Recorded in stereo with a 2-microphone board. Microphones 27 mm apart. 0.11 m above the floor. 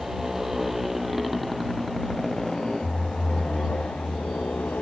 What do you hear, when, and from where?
0.0 s a motorcycle: 15° right (ahead or behind); by 4.8 s 65° left (ahead or behind)